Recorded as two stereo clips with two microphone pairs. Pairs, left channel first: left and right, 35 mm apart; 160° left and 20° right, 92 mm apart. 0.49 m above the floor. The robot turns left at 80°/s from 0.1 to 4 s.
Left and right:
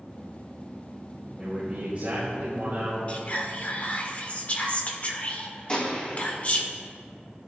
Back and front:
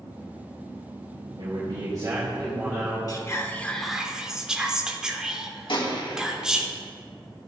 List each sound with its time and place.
1.4 s a man speaking: 20° right, 3 m; by 3.0 s 145° right, 3 m
3.1 s whispering: 135° left, 1.2 m; by 6.7 s 60° left, 1.2 m
5.7 s a gunshot: 145° left, 3 m